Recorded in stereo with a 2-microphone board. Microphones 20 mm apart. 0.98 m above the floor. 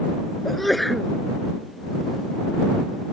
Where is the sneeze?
5° left (ahead or behind).